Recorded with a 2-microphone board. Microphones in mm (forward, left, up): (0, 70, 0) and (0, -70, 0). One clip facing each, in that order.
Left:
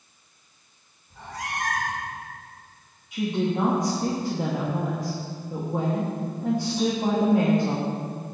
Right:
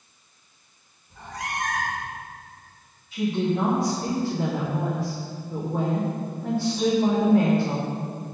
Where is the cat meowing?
5° left (ahead or behind), 1.4 m.